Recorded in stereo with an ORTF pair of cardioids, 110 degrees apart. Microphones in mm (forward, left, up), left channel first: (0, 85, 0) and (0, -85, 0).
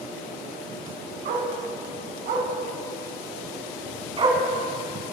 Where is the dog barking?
65° right, 5 m; by 5.1 s 20° right, 4.5 m.